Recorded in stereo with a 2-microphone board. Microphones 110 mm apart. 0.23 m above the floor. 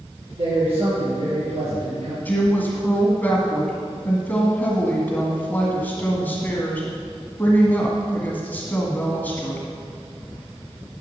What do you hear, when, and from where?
0.4 s a man speaking: 65° right (ahead or behind), 3.5 m; by 2.1 s 75° right (ahead or behind), 4 m
2.2 s a woman speaking: 15° left (ahead or behind), 1.8 m